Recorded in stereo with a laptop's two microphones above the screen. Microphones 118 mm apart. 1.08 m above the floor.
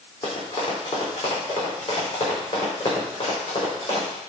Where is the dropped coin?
No dropped coin in this recording.